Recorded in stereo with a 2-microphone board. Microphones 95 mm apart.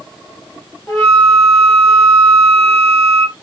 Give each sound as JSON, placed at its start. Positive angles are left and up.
{"t": 0.9, "sound": "a flute", "side_deg": 40, "distance_m": 2.5}